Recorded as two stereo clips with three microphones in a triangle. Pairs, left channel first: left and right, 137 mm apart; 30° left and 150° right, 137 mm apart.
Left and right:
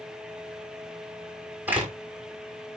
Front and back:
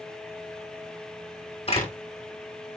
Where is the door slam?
15° right, 6.5 m.